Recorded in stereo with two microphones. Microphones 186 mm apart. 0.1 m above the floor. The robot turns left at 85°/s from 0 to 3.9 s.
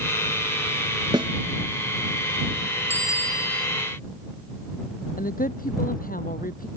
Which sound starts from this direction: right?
A snare drum, at 1.1 s.